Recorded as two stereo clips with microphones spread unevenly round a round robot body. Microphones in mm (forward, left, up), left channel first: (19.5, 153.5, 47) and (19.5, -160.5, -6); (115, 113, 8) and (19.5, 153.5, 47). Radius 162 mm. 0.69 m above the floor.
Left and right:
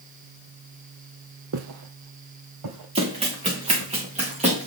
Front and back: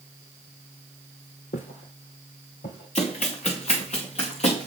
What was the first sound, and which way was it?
Footsteps, 45° right.